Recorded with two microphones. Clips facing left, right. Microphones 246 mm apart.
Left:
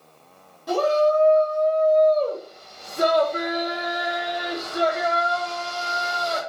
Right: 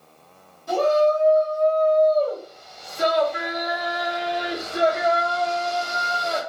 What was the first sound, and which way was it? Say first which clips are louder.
A shout: right 1 dB; 85° left.